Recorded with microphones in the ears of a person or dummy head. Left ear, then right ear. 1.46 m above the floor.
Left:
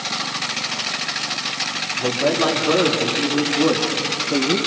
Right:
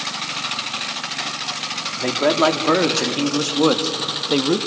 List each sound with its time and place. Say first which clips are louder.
2.0 s a man speaking: right 2 dB; 55° right (ahead or behind), 3 m; by 4.6 s 85° right, 1.9 m